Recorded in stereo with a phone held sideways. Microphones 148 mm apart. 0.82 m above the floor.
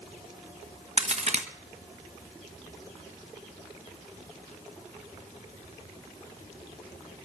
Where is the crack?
50° right (ahead or behind), 1.2 m.